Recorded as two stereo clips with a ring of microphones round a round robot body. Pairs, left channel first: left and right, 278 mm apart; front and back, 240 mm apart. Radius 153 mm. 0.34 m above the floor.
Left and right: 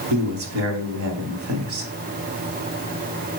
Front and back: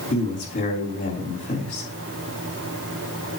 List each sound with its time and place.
0.1 s a man speaking: 60° right, 3.5 m